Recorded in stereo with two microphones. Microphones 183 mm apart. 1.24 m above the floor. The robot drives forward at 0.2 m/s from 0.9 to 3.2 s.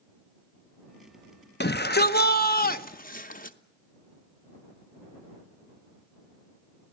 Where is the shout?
60° left (ahead or behind), 0.9 m; by 3.6 s 45° left (ahead or behind), 1.1 m.